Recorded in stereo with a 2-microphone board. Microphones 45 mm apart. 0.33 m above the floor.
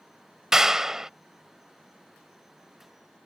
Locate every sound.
0.5 s a clap: 10° right (ahead or behind)